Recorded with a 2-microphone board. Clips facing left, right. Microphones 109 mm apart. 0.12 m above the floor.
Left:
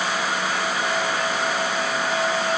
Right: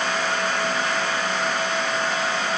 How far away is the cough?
No cough in this recording.